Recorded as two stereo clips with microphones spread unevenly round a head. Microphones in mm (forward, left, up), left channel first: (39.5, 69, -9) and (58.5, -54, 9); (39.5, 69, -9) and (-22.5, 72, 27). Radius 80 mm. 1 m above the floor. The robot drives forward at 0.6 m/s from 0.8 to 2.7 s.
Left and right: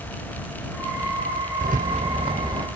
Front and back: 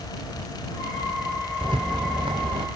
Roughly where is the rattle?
Behind right.